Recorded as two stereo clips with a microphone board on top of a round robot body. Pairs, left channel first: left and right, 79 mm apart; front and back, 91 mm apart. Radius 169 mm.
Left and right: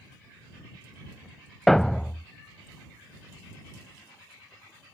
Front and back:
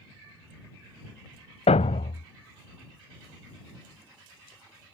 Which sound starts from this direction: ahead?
A thud, at 1.7 s.